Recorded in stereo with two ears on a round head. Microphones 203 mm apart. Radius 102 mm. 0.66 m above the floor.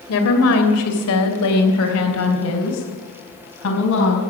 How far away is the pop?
I don't hear a pop.